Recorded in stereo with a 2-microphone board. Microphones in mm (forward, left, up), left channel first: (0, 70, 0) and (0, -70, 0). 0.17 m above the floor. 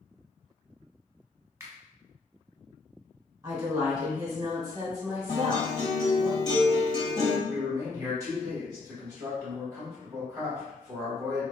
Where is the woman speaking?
30° right (ahead or behind), 1.6 m.